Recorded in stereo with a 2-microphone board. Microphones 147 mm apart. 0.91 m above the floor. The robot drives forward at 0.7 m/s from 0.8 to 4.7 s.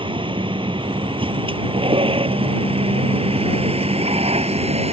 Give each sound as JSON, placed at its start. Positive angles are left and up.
{"t": 0.0, "sound": "a vehicle", "side_deg": -35}